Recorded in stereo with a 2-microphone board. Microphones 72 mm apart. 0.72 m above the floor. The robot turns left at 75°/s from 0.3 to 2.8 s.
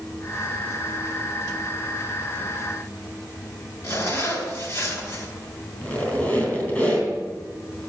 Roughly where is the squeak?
Left.